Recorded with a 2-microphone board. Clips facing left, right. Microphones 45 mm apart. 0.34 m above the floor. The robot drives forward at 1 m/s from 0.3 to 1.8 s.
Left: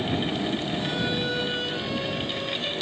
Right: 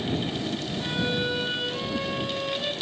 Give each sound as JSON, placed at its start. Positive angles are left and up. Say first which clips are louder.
{"t": 0.8, "sound": "a violin", "louder": "even", "side_deg": -10, "distance_m": 1.5}